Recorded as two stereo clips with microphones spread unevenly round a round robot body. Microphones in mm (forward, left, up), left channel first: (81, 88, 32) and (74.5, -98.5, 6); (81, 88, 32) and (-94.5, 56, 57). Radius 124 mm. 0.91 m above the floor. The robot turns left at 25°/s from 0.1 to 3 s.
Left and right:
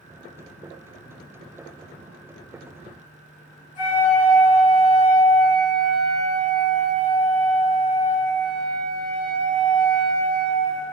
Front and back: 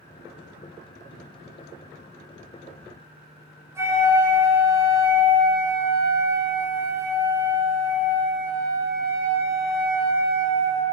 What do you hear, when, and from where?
3.8 s a flute: 120° left, 1.8 m